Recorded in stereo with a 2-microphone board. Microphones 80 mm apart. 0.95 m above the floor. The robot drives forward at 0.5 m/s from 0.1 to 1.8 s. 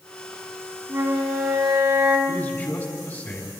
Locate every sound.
0.9 s a flute: 30° right (ahead or behind), 3 m; by 2.2 s 25° right (ahead or behind), 3.5 m
2.3 s a man speaking: 30° left (ahead or behind), 5 m